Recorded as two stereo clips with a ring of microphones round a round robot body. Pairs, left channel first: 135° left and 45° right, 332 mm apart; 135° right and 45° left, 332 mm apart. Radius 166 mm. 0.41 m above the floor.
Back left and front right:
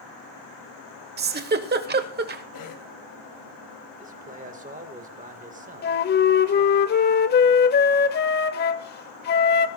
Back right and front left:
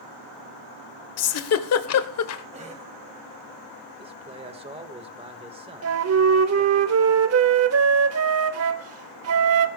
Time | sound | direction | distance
1.2 | a giggle | 100° right | 1.2 m
2.5 | a cough | 115° left | 1.8 m
4.0 | a man speaking | 10° right | 1.3 m
5.8 | a flute | 80° left | 1.0 m